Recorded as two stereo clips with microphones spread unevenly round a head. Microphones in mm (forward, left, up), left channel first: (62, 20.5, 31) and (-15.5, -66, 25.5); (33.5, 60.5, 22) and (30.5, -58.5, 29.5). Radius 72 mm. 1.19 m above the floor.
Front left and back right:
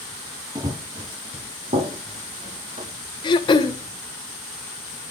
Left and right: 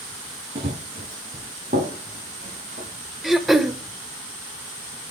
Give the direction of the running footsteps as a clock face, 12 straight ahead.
3 o'clock.